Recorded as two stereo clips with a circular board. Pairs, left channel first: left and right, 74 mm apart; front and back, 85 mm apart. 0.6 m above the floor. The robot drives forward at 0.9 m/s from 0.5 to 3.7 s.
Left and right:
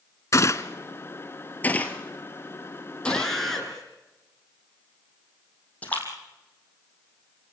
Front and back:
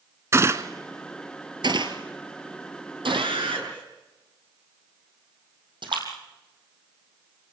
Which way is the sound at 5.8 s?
160° left.